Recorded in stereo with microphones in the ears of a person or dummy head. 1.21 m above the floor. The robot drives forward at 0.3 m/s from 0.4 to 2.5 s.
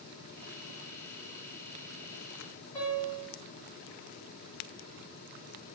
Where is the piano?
5° left (ahead or behind), 1.7 m.